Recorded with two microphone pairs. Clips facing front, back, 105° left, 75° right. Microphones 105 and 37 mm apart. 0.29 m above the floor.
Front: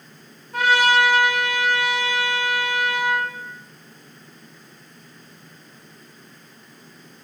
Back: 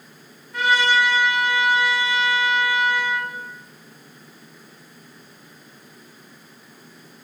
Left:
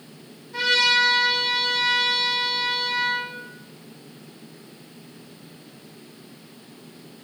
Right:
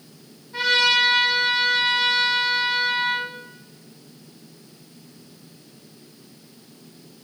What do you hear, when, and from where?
0.5 s a trumpet: 10° left, 0.7 m